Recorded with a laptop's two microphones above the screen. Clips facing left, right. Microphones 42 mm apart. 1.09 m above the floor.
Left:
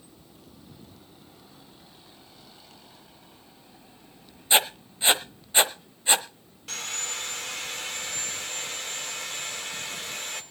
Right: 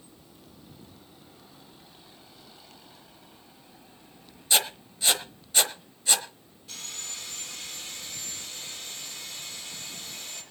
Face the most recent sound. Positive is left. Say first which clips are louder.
# left 7 dB
turn(degrees=80)